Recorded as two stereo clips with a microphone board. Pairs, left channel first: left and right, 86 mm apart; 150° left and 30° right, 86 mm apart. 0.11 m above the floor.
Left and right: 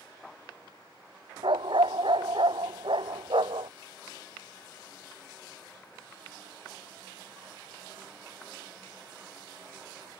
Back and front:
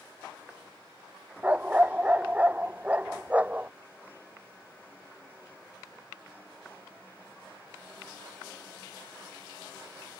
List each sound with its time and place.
1.4 s a dog barking: 105° right